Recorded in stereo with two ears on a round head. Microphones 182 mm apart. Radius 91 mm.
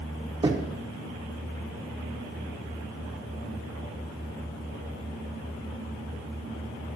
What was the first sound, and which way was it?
Knocking, 25° right (ahead or behind).